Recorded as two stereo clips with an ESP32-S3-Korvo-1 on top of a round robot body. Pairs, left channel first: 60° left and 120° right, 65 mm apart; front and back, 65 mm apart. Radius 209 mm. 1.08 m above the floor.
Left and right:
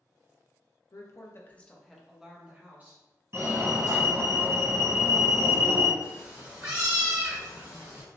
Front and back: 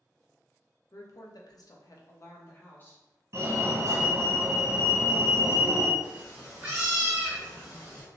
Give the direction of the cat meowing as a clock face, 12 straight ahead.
4 o'clock.